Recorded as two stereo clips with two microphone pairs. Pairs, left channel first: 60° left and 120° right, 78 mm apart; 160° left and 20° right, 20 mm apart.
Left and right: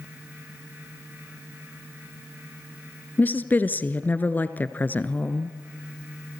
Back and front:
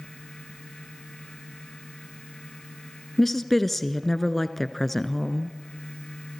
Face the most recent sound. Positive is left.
turn(degrees=90)